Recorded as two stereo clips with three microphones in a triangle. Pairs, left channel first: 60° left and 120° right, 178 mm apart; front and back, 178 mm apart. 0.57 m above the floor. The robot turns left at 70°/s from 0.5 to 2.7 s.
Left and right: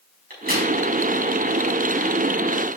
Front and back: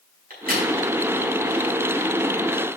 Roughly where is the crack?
Behind right.